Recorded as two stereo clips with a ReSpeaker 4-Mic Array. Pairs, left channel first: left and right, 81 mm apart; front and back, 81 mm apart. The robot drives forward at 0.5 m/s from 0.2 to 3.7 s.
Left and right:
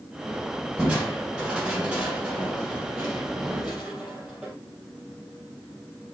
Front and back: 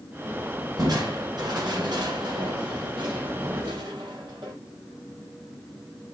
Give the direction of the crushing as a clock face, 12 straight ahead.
5 o'clock.